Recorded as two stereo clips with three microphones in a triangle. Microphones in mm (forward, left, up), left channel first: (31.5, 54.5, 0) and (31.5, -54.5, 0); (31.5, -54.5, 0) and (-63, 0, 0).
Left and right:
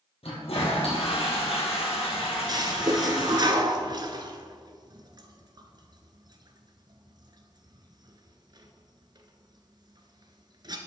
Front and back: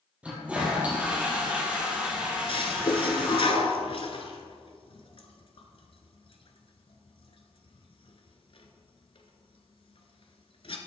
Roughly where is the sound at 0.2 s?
Left.